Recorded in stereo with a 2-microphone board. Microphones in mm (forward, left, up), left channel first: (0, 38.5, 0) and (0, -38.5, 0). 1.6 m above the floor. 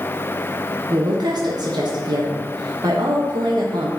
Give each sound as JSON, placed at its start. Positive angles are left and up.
{"t": 0.9, "sound": "a woman speaking", "side_deg": -60, "distance_m": 1.0}